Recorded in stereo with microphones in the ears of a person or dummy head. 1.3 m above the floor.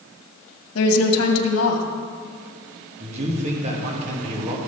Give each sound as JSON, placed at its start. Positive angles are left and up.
{"t": 0.8, "sound": "a woman speaking", "side_deg": 75, "distance_m": 1.7}
{"t": 3.0, "sound": "a man speaking", "side_deg": -35, "distance_m": 2.0}